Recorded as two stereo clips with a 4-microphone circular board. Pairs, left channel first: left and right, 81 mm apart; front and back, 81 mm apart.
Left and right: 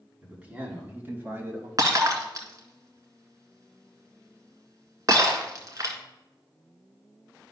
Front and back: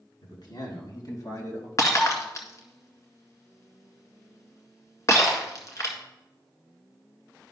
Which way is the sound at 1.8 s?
45° right.